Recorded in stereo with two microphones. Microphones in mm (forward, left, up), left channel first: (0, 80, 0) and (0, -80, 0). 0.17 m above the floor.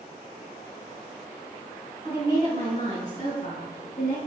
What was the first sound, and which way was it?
A woman speaking, 40° left (ahead or behind).